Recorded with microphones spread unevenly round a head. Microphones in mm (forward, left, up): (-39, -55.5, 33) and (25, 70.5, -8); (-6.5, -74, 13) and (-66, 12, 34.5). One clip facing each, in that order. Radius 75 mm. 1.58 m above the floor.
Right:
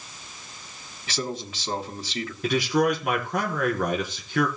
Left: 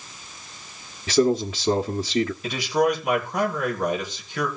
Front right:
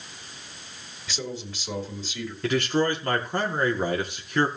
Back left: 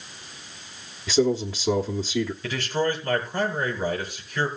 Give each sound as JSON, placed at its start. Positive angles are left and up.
{"t": 1.1, "sound": "a man speaking", "azimuth_deg": 90, "distance_m": 1.2}
{"t": 2.4, "sound": "a man speaking", "azimuth_deg": -75, "distance_m": 4.5}